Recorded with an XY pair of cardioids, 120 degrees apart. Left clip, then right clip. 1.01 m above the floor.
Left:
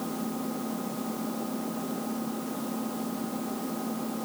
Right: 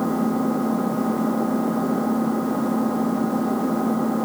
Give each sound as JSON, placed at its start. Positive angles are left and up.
{"t": 0.0, "sound": "an engine running", "azimuth_deg": -60}